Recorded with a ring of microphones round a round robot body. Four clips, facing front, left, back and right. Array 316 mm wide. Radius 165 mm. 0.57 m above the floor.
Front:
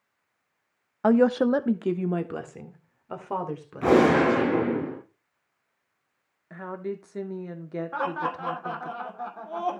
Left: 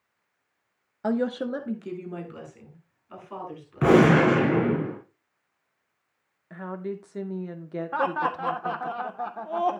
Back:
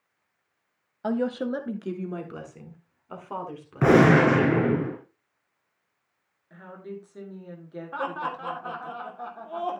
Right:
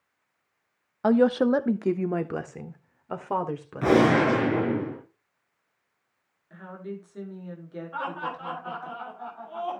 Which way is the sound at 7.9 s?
85° left.